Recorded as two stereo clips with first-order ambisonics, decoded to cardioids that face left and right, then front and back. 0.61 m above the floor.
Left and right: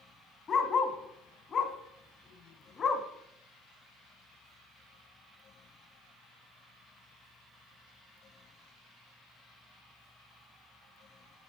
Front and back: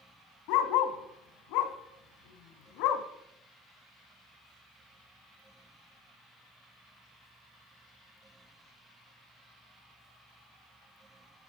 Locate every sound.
0.5 s a dog barking: 20° left, 1.4 m